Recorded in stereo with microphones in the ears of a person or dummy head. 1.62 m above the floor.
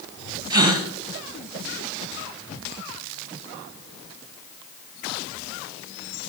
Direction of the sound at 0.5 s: 15° right (ahead or behind).